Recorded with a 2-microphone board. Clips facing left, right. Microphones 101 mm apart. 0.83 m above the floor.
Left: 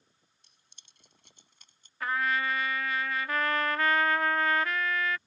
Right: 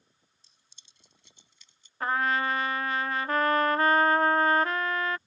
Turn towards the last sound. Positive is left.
turn(degrees=-35)  # may be behind; listen again after turning